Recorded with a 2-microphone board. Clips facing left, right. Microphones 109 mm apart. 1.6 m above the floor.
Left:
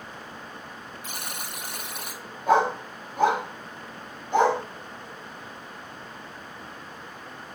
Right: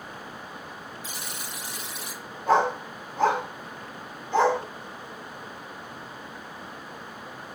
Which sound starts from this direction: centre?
A dog barking, at 2.5 s.